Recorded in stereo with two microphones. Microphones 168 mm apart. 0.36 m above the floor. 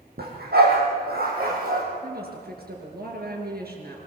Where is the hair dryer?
I don't hear a hair dryer.